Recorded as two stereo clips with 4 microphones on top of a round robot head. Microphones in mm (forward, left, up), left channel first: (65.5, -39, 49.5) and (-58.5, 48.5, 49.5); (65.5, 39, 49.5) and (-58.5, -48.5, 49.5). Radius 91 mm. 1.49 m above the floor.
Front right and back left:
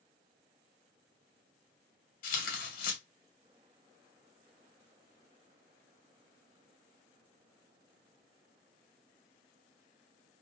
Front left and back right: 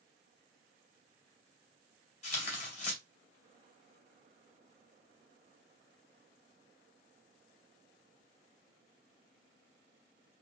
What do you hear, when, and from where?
2.2 s tearing paper: 10° right, 1.9 m